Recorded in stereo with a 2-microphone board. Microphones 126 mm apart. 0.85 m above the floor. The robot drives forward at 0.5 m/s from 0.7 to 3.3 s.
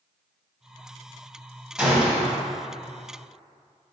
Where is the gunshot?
5° right (ahead or behind), 1.6 m.